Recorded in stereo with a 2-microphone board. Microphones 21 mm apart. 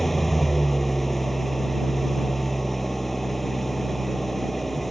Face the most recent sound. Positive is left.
turn(degrees=10)  # may be behind; listen again after turning